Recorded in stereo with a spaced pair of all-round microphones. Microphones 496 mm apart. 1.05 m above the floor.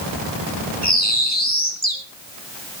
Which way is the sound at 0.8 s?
20° left (ahead or behind).